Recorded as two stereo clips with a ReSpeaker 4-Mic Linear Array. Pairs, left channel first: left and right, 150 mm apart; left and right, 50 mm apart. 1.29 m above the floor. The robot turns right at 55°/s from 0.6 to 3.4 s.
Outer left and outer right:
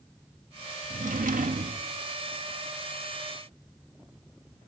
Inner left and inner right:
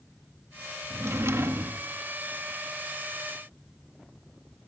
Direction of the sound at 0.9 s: 110° right.